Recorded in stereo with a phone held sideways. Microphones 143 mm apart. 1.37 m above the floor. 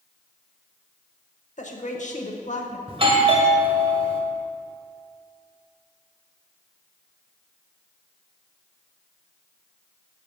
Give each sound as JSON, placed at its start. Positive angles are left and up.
{"t": 1.6, "sound": "a woman speaking", "side_deg": 60, "distance_m": 1.1}
{"t": 2.9, "sound": "a doorbell", "side_deg": -40, "distance_m": 1.0}